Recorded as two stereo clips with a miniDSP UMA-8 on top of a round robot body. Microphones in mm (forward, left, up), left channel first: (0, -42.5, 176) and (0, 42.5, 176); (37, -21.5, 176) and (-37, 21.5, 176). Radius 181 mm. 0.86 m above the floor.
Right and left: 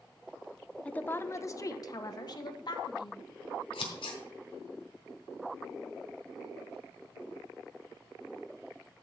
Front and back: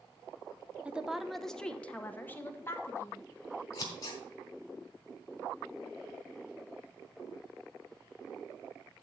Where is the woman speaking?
150° right, 0.9 m; by 3.3 s 85° right, 1.8 m.